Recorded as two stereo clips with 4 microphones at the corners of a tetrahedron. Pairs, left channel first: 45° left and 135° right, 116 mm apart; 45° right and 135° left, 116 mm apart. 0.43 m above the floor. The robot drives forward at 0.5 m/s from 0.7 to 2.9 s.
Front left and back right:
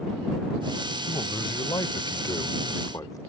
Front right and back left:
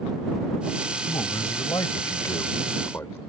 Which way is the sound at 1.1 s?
5° left.